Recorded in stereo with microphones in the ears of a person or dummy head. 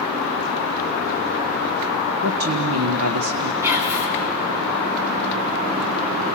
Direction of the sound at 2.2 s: 85° right.